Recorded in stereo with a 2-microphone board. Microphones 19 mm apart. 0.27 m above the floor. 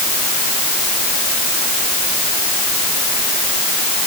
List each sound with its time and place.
Only background noise.